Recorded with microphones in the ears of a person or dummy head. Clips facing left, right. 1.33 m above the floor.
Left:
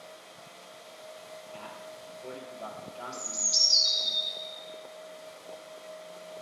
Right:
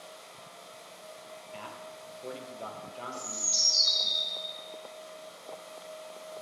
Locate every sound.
1.5 s a man speaking: 30° right (ahead or behind), 1.0 m
3.1 s a bird: 20° right (ahead or behind), 1.7 m